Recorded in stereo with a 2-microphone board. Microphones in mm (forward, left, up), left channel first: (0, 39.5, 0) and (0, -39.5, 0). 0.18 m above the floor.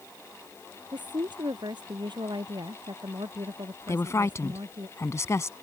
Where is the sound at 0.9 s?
70° right (ahead or behind).